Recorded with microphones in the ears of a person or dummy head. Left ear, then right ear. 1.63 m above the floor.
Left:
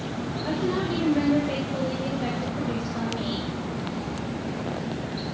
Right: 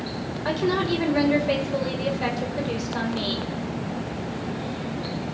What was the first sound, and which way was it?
A woman speaking, 75° right (ahead or behind).